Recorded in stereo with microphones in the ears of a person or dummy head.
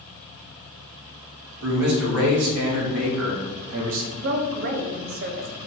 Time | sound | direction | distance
1.6 | a man speaking | 85° right | 3 m
4.1 | a woman speaking | 55° right (ahead or behind) | 1.1 m